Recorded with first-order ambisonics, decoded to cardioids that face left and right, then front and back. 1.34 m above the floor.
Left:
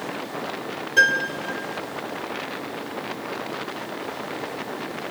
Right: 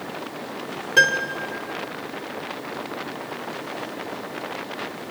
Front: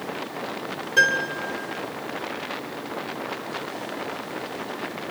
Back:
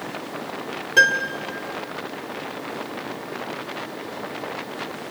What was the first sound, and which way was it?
A piano, 125° right.